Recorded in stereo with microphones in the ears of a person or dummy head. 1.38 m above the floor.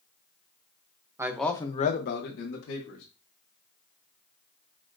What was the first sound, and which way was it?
A man speaking, 15° right (ahead or behind).